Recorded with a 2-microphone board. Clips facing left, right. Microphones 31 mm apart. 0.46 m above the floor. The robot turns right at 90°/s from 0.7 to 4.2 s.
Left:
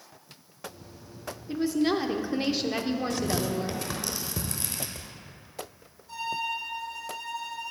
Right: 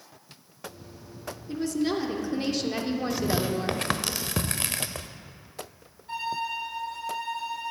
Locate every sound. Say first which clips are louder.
1.5 s a woman speaking: left 2 dB; 15° left (ahead or behind), 0.9 m; by 3.8 s 20° right (ahead or behind), 0.9 m
3.1 s tearing paper: right 2 dB; centre (ahead or behind), 0.6 m; by 5.1 s 75° right (ahead or behind), 0.6 m
6.1 s a violin: right 1 dB; 45° right (ahead or behind), 2.5 m